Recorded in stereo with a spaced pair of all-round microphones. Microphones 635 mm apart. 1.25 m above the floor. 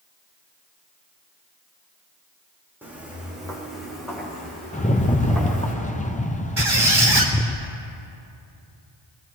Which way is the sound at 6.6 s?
45° right (ahead or behind).